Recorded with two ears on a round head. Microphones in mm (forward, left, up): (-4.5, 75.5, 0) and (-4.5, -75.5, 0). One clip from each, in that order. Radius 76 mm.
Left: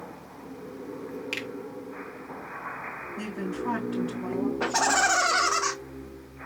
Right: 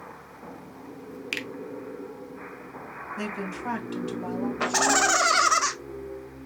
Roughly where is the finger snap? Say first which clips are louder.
Right 2 dB; right.